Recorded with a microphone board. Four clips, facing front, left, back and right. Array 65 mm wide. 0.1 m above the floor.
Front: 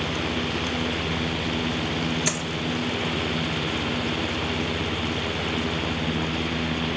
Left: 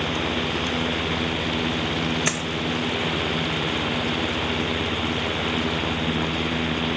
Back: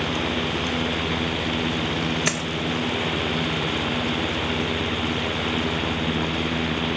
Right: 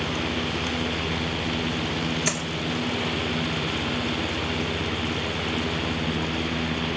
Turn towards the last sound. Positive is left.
turn(degrees=140)